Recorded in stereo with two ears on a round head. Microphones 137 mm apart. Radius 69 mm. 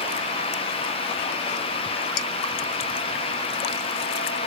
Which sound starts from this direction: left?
Dishes clattering, at 2.2 s.